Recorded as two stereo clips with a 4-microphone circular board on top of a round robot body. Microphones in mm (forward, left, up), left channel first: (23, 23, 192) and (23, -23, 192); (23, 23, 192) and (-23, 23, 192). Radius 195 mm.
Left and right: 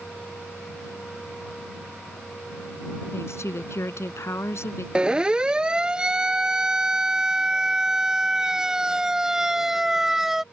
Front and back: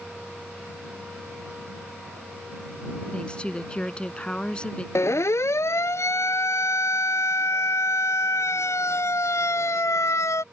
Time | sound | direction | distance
3.1 | a woman speaking | 70° left | ?
5.0 | a siren | 20° right | ?